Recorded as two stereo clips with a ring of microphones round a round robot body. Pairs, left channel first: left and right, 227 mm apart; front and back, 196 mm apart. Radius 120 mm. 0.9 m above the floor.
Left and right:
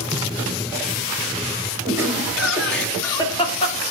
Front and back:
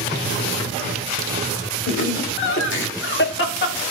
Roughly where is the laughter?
Ahead.